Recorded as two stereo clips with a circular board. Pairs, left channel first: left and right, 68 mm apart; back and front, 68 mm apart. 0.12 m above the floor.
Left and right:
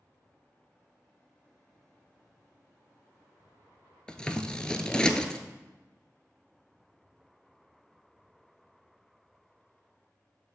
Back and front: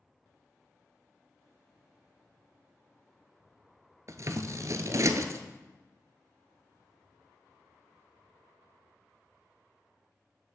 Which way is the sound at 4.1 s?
15° left.